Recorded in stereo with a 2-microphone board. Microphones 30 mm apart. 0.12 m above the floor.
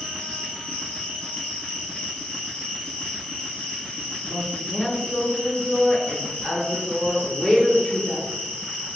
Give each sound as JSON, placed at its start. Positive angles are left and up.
{"t": 0.0, "sound": "an insect", "side_deg": 75, "distance_m": 1.6}
{"t": 4.2, "sound": "a woman speaking", "side_deg": 35, "distance_m": 1.5}